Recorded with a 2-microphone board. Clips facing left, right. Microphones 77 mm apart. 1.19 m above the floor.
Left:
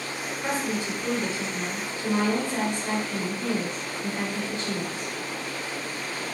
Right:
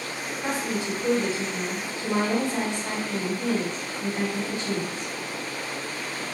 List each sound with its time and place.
0.4 s a woman speaking: 20° right (ahead or behind), 1.9 m